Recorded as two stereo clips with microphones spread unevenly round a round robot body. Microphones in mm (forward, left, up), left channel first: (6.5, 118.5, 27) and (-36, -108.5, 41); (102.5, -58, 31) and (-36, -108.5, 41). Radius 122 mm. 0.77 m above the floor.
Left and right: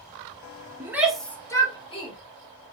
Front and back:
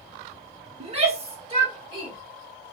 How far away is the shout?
About 0.8 m.